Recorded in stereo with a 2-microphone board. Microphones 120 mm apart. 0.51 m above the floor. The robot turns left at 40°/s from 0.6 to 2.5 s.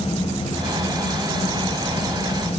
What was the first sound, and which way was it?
Only background noise.